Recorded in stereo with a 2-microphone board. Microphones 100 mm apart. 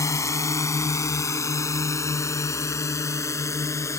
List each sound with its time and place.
0.0 s a drone: 30° left (ahead or behind)